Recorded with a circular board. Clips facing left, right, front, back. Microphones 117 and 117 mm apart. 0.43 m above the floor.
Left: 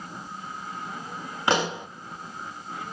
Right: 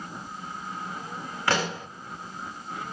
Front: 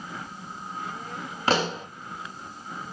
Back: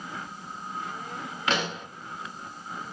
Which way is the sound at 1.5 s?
30° left.